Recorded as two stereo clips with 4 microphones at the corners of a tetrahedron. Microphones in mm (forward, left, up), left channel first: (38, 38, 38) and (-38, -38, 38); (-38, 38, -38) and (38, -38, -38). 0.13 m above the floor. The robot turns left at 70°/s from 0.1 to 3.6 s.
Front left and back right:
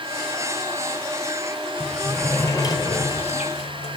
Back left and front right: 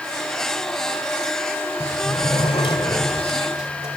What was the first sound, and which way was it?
A sliding door, 160° left.